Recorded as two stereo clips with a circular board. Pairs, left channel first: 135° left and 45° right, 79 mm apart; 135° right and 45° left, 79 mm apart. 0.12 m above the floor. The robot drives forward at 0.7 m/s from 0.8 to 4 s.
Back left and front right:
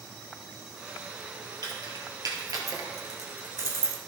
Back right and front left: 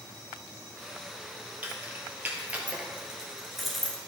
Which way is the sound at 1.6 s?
15° right.